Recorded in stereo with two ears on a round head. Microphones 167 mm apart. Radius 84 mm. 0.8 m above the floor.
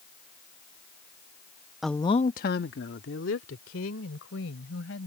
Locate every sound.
1.8 s a woman speaking: centre (ahead or behind); by 5.1 s 85° left